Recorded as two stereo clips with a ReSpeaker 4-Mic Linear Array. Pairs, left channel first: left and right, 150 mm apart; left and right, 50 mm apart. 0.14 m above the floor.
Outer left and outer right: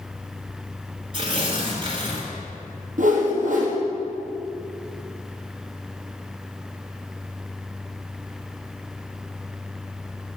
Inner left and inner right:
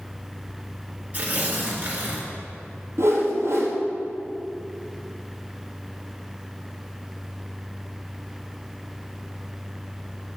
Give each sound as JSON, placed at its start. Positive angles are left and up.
{"t": 1.1, "sound": "tearing paper", "side_deg": -35, "distance_m": 2.5}
{"t": 3.0, "sound": "a whoosh", "side_deg": -70, "distance_m": 1.7}